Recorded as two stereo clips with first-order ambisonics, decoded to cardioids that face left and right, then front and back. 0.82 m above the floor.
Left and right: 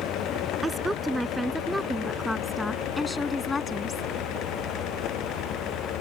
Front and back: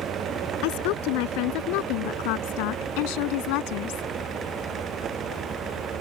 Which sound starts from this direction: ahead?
A woman speaking, at 0.6 s.